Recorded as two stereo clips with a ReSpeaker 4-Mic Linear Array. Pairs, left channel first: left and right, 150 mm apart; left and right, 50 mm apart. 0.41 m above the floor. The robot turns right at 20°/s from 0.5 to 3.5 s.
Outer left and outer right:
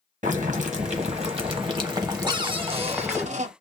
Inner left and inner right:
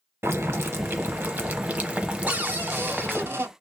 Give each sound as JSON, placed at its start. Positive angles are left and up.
{"t": 0.2, "sound": "boiling", "azimuth_deg": -60, "distance_m": 0.7}
{"t": 2.3, "sound": "a cupboard door", "side_deg": -30, "distance_m": 0.6}